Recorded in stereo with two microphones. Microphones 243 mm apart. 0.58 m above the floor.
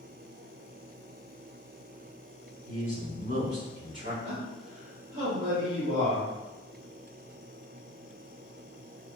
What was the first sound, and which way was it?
A man speaking, 60° right (ahead or behind).